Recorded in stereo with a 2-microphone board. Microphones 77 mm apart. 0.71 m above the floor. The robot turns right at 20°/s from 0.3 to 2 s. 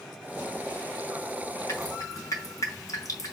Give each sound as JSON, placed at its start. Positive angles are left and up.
{"t": 1.7, "sound": "dripping", "side_deg": 40, "distance_m": 4.0}